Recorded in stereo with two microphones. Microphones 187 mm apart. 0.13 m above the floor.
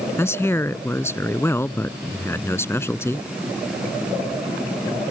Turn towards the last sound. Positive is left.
turn(degrees=15)  # may be behind; listen again after turning